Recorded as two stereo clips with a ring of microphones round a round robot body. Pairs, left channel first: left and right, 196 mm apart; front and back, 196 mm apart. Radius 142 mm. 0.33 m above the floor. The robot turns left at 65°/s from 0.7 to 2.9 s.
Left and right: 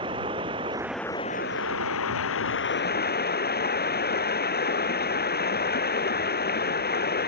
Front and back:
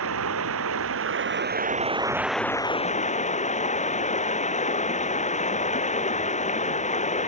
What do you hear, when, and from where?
0.0 s running water: 165° right; by 7.3 s 55° left